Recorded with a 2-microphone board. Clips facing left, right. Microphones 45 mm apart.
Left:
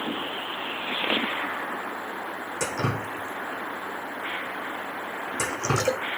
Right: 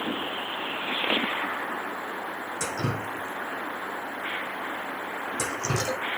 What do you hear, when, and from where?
2.6 s dripping: 65° left (ahead or behind), 1.4 m